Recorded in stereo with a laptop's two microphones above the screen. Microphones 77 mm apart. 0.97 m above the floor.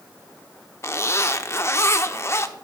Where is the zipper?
35° left (ahead or behind), 0.7 m.